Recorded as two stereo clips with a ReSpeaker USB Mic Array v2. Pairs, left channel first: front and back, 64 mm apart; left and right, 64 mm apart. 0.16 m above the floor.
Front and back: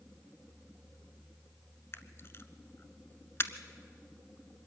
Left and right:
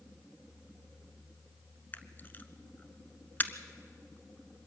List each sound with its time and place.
1.9 s a camera shutter: 40° left, 0.8 m